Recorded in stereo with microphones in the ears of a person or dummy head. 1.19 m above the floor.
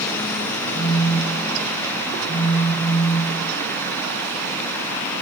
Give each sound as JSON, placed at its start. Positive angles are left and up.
{"t": 0.7, "sound": "a phone buzzing", "side_deg": 15, "distance_m": 3.5}